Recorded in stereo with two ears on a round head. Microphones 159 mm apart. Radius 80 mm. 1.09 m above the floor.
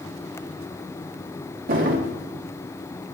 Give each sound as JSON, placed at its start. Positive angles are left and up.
{"t": 1.7, "sound": "a drawer", "side_deg": -50, "distance_m": 1.1}